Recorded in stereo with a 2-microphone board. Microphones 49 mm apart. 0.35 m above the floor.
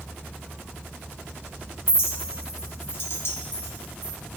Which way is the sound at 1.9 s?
60° left (ahead or behind).